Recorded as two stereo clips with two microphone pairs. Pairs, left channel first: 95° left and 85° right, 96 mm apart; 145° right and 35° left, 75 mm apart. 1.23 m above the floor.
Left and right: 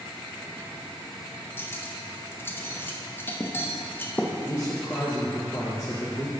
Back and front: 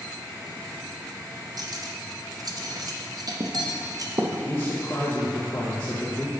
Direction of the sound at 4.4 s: 155° left.